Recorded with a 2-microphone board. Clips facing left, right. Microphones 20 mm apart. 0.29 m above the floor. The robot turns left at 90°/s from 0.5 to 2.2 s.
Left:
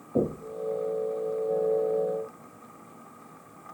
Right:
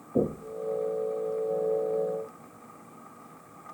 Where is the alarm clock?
I don't hear an alarm clock.